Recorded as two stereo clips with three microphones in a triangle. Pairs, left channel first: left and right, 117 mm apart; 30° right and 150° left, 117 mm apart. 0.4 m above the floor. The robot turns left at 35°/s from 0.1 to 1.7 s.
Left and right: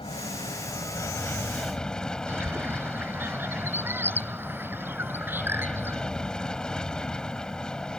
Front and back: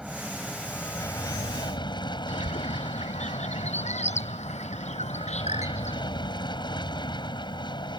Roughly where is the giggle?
I don't hear a giggle.